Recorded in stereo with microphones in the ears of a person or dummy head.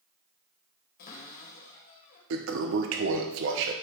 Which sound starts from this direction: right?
A toilet flushing, at 2.3 s.